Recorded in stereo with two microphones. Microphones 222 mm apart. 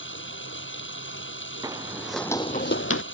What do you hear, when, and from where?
0.0 s running water: 60° left (ahead or behind)
1.6 s footsteps: 15° right (ahead or behind); by 3.0 s 80° left